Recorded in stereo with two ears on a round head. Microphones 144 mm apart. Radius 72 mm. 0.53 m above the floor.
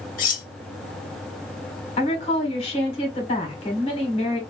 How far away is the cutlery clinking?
About 1.0 m.